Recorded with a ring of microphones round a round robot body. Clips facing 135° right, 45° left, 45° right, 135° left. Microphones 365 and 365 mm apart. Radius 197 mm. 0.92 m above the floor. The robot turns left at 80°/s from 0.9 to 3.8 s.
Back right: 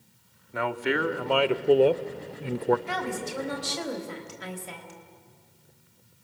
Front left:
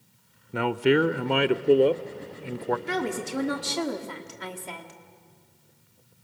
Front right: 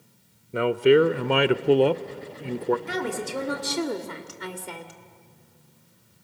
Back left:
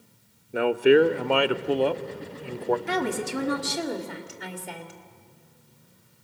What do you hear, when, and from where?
0.5 s a man speaking: 40° left, 0.6 m; by 2.8 s 110° right, 0.6 m
2.9 s a woman speaking: 110° left, 2 m; by 5.0 s 35° left, 2 m